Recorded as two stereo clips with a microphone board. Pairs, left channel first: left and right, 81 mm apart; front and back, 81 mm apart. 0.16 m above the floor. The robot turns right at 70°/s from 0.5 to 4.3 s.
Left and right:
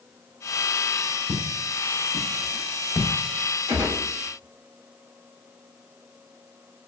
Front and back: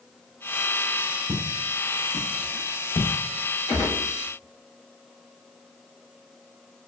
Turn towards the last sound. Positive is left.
turn(degrees=15)